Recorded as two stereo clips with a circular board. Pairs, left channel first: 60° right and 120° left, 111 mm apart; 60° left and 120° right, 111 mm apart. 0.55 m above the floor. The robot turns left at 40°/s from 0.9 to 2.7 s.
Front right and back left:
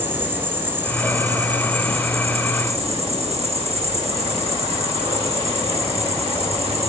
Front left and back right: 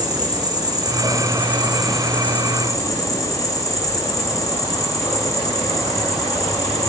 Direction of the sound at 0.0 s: 170° right.